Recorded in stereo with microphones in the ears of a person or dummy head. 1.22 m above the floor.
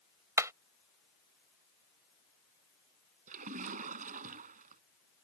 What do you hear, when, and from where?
0.4 s hammering: 20° right (ahead or behind)
3.3 s a splash: 45° right (ahead or behind)